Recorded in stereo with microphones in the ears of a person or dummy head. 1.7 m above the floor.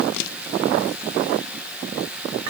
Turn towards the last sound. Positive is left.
No sound to turn to.